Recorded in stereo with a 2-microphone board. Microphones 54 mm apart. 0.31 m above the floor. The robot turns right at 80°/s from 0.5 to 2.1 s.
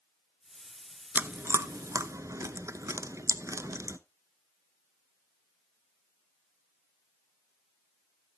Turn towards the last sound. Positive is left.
turn(degrees=-70)  # may be behind; listen again after turning